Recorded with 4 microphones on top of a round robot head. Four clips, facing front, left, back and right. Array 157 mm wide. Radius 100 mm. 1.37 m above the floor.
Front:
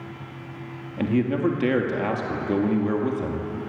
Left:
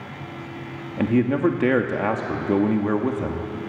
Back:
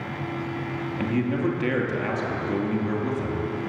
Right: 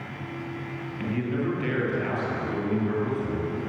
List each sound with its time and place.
1.0 s a man speaking: 70° left, 2 m